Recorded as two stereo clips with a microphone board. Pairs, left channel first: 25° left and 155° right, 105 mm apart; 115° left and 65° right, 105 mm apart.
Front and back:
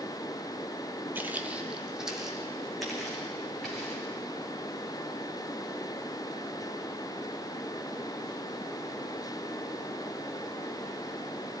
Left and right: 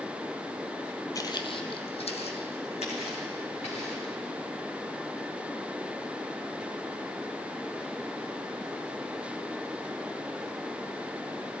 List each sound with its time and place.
1.1 s footsteps: 140° left, 1.0 m; by 4.1 s 110° left, 4.5 m